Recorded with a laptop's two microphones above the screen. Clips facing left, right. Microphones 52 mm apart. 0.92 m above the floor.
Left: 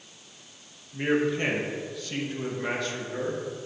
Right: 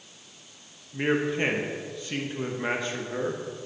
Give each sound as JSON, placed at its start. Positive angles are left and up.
{"t": 0.9, "sound": "a man speaking", "side_deg": -25, "distance_m": 1.1}